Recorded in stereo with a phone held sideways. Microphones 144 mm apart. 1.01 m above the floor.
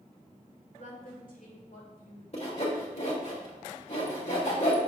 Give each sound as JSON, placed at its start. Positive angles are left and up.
{"t": 0.7, "sound": "a woman speaking", "side_deg": 70, "distance_m": 2.0}
{"t": 2.3, "sound": "sawing", "side_deg": 50, "distance_m": 1.4}